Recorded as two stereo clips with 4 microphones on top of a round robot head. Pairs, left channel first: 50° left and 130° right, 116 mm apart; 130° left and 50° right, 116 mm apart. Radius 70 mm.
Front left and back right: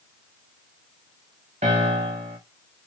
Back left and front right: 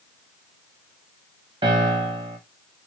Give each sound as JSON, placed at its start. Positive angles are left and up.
{"t": 1.6, "sound": "a piano", "azimuth_deg": -95, "distance_m": 1.6}